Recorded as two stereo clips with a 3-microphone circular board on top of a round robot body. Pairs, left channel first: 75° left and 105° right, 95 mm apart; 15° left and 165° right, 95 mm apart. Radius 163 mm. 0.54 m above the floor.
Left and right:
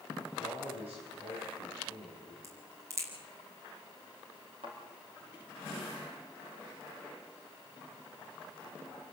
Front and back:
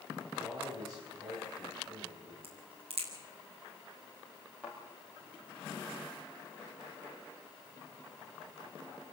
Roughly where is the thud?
Right.